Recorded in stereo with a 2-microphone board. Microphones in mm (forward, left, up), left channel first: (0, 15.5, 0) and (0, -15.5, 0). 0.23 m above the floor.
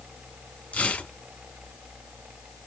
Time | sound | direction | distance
0.7 | tearing paper | 55° left (ahead or behind) | 1.2 m